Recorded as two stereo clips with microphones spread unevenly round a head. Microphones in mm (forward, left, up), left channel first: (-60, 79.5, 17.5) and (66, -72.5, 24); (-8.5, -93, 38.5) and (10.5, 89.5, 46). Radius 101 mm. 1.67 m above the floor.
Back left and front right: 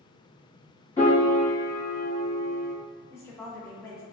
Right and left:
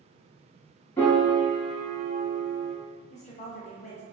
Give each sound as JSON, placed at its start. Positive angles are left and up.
{"t": 1.0, "sound": "a piano", "azimuth_deg": -165, "distance_m": 1.1}
{"t": 3.1, "sound": "a woman speaking", "azimuth_deg": -150, "distance_m": 0.6}